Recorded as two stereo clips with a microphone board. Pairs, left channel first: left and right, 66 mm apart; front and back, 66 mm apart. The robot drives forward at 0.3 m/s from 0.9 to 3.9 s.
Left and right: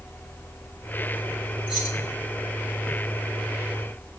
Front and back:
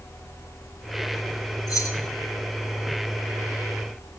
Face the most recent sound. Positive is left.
turn(degrees=-30)